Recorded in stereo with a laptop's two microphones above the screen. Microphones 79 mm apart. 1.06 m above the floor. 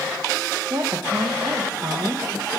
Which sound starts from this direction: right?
A woman speaking, at 0.7 s.